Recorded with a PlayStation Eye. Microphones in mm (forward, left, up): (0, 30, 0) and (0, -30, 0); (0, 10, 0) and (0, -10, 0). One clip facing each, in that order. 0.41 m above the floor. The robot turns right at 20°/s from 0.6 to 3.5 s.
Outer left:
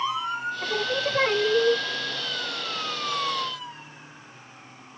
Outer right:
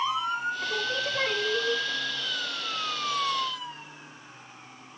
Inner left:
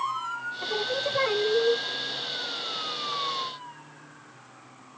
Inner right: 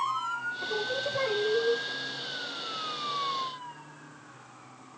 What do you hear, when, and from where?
0.6 s singing: 25° left (ahead or behind), 1.0 m; by 1.8 s 40° left (ahead or behind), 1.0 m